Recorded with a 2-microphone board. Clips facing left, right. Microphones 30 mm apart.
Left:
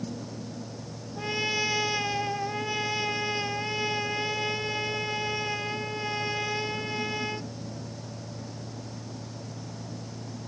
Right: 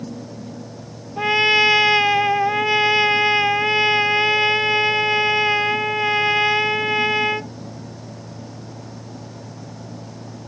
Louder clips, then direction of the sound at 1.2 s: Right 13 dB; 45° right (ahead or behind).